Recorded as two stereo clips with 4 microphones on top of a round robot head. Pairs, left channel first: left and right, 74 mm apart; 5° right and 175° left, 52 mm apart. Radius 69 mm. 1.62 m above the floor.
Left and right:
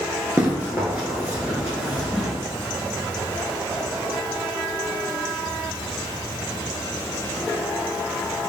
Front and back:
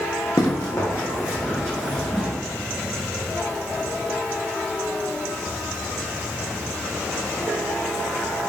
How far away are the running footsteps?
About 1.9 m.